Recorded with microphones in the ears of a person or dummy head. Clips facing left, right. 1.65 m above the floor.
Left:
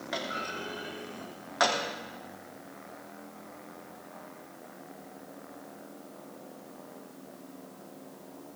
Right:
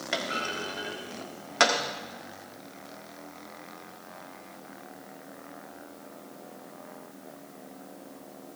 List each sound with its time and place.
0.1 s a clunk: 35° right (ahead or behind), 1.5 m